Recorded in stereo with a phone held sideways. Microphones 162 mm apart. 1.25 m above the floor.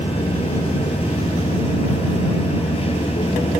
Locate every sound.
0.0 s a machine running: 35° left (ahead or behind)